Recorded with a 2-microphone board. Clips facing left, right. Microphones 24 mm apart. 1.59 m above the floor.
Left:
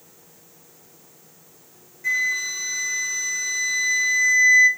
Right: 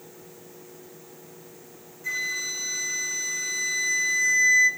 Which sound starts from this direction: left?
A flute, at 2.0 s.